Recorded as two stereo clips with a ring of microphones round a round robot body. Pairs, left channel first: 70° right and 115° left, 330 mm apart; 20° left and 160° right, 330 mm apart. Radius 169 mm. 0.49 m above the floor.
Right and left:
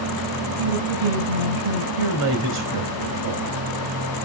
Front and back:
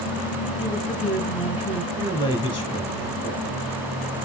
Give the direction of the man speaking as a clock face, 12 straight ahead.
9 o'clock.